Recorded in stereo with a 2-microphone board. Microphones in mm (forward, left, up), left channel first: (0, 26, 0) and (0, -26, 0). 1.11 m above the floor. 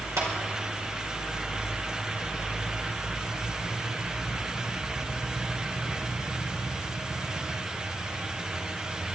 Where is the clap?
80° right, 4 m.